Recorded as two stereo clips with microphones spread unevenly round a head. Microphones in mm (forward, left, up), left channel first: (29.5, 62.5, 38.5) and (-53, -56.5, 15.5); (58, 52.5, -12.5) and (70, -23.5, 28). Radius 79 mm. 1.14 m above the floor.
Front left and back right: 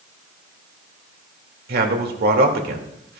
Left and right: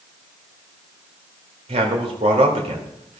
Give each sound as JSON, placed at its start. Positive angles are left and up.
{"t": 1.7, "sound": "a man speaking", "azimuth_deg": -120, "distance_m": 2.0}